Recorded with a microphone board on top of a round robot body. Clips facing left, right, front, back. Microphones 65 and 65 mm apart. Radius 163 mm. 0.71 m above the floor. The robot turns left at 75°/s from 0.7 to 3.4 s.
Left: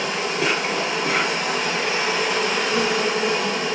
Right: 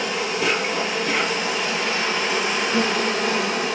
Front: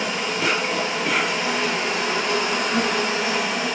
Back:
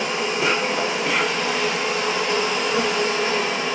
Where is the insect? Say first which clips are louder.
Even, back 1 dB; 120° left, 1.4 m; by 3.8 s 85° right, 1.4 m.